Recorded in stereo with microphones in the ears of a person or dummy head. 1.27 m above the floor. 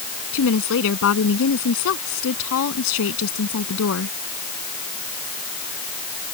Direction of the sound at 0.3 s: 75° left (ahead or behind).